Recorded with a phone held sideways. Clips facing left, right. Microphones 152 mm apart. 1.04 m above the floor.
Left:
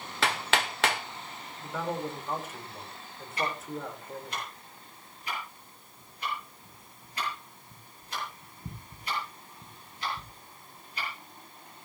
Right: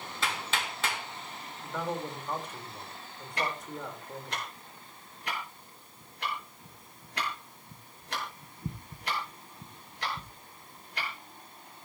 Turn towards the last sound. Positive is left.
turn(degrees=-75)  # may be behind; listen again after turning